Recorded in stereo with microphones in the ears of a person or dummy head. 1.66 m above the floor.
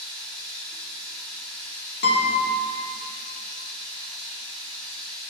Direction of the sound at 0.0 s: 10° left (ahead or behind).